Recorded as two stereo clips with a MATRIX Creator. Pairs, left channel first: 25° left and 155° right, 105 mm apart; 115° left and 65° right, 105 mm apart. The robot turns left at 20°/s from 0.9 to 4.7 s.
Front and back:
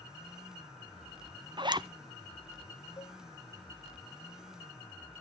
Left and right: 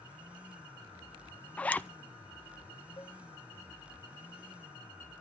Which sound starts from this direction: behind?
A zipper, at 1.6 s.